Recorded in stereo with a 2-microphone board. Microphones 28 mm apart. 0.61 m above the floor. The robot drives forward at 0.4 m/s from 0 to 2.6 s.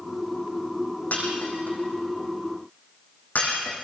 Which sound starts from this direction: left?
Breaking glass, at 1.1 s.